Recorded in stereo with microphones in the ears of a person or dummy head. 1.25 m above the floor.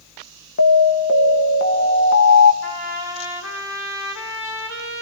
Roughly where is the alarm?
Left.